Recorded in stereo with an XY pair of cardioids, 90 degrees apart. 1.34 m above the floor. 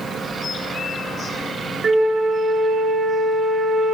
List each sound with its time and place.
1.8 s a flute: 45° right, 0.6 m